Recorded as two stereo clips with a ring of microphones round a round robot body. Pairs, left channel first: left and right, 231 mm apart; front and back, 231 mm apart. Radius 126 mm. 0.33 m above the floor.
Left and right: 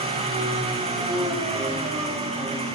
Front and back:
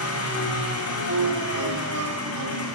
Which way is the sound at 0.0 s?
25° right.